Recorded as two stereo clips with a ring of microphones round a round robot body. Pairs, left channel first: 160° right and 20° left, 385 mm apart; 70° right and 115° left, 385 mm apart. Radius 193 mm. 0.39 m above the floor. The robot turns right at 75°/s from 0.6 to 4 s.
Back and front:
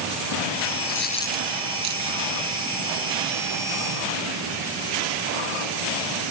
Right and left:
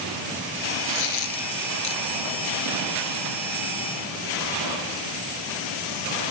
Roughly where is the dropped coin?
Right.